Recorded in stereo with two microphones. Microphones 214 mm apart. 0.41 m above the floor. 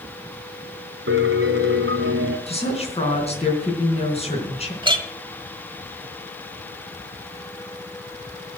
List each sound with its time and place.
1.1 s a piano: 80° right, 2 m
2.5 s a woman speaking: 30° left (ahead or behind), 4 m
4.8 s a clink: 25° right (ahead or behind), 1.2 m